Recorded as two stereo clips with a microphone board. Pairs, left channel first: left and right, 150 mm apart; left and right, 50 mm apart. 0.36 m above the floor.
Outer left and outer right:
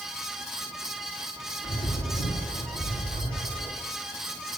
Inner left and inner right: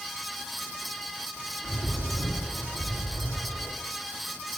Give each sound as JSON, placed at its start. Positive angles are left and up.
{"t": 1.6, "sound": "a bird", "side_deg": 75, "distance_m": 5.0}